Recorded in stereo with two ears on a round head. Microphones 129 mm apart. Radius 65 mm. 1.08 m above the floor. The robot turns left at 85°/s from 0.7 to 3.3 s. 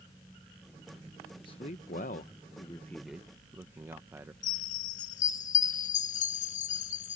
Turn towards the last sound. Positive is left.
turn(degrees=60)  # may be behind; listen again after turning